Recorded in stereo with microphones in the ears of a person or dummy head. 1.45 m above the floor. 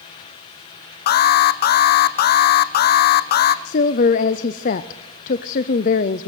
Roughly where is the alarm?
Left.